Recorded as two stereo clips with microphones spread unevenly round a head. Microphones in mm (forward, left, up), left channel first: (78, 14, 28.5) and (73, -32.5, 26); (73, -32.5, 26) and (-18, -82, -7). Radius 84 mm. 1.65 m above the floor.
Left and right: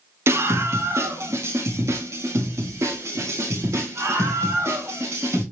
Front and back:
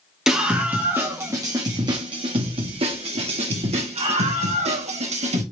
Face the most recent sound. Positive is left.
turn(degrees=-145)